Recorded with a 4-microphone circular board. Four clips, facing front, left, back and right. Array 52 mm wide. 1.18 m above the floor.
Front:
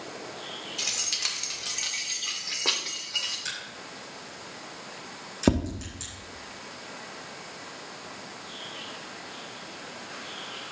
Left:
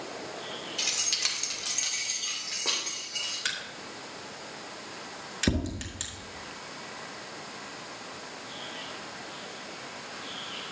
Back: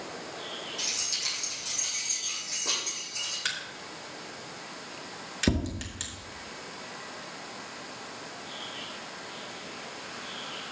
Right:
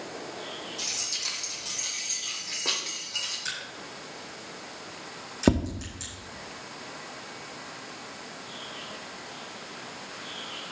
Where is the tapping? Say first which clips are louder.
Right 6 dB, front 5 dB; 50° right, 1.0 m.